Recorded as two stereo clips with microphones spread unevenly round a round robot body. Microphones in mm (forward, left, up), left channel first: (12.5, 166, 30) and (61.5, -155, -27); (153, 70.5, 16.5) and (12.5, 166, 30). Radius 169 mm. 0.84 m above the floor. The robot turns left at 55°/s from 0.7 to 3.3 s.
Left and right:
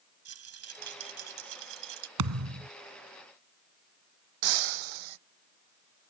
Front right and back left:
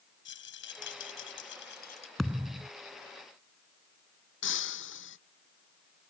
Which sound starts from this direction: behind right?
A thud, at 2.2 s.